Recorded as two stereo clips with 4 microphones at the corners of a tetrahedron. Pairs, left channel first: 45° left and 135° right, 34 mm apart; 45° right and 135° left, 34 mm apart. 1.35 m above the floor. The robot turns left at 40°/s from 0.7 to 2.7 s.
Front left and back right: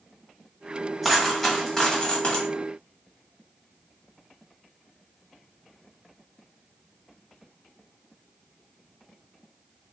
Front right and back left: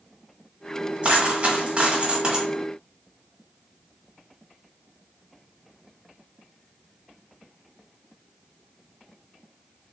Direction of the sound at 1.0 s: 135° left.